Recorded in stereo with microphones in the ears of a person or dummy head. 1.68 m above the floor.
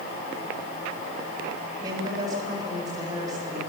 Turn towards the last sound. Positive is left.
turn(degrees=-20)  # may be behind; listen again after turning